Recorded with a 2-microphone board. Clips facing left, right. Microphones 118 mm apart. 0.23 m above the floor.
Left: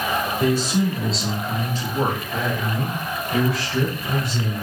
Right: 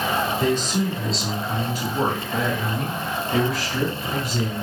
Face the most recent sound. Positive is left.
turn(degrees=-30)  # may be behind; listen again after turning